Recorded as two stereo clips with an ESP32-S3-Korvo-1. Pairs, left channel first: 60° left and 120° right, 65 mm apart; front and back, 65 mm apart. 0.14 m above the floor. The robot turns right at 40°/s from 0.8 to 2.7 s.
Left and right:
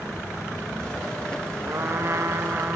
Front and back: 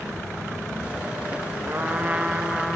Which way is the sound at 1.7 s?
135° right.